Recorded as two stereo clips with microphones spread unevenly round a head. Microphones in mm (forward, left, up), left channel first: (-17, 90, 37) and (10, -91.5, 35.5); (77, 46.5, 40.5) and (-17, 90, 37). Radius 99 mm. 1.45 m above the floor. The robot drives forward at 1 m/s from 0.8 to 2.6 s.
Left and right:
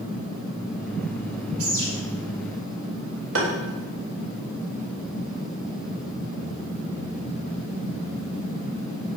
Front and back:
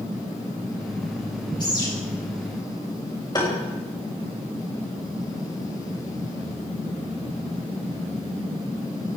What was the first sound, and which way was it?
A bird, 95° right.